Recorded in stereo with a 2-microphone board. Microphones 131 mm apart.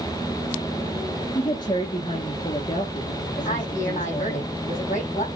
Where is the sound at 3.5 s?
60° left (ahead or behind), 5 m.